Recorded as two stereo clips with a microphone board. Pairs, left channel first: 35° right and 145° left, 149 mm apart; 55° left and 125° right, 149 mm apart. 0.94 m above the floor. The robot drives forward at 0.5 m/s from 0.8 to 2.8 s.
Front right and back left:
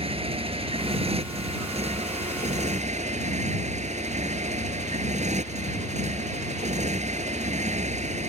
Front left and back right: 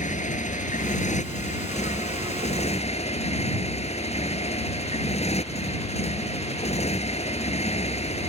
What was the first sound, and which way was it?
A motorcycle, 95° left.